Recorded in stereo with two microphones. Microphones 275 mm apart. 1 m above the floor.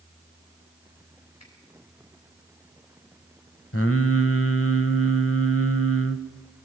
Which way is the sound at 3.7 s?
50° left (ahead or behind).